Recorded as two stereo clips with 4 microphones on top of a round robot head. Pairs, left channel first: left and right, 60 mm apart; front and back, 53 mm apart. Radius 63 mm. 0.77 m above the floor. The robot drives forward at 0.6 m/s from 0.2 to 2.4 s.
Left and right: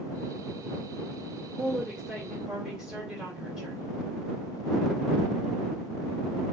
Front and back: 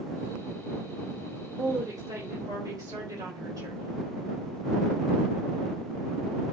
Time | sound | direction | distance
1.6 | a woman speaking | 165° right | 2.5 m